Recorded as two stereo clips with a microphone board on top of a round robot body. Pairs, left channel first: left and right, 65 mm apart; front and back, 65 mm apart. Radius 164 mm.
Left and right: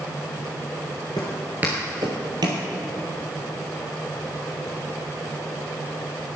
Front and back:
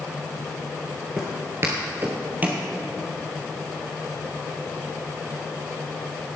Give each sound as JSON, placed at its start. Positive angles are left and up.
{"t": 1.2, "sound": "footsteps", "azimuth_deg": 100, "distance_m": 1.0}